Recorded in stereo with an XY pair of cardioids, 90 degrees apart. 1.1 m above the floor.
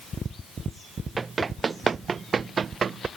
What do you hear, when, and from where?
1.2 s running footsteps: 35° right; by 3.1 s 50° right